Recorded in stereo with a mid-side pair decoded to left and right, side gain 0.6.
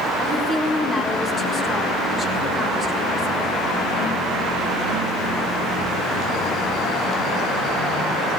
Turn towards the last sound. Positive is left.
turn(degrees=-10)